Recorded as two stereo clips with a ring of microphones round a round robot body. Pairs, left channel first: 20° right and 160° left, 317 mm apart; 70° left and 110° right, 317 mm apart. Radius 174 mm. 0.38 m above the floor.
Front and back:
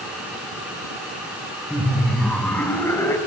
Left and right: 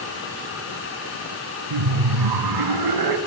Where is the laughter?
115° right, 3.5 m; by 3.2 s 105° right, 4.5 m.